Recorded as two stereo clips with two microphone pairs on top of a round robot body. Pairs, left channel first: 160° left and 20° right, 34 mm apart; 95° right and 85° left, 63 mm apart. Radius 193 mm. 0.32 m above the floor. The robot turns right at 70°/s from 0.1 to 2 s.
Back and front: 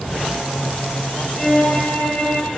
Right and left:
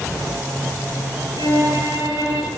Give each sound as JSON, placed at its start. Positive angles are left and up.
{"t": 1.4, "sound": "a violin", "azimuth_deg": 70, "distance_m": 6.0}